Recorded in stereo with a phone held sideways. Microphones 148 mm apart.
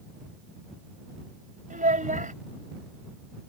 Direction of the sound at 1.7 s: 60° right (ahead or behind).